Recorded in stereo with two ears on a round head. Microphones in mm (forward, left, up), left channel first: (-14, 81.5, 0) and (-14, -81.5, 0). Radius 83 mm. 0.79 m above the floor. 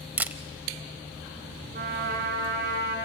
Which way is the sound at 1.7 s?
55° right (ahead or behind).